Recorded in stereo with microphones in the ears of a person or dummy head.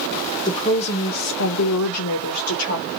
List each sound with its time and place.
0.5 s a woman speaking: 20° left (ahead or behind), 0.9 m; by 2.9 s 60° left (ahead or behind), 1.2 m